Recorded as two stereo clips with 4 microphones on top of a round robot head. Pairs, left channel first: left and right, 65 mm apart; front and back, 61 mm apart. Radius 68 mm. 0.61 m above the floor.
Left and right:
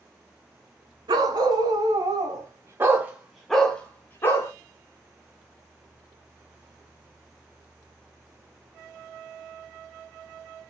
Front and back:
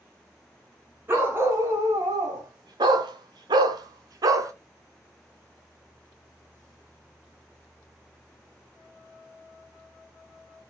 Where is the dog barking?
115° right, 2 m; by 4.5 s 145° left, 1.7 m.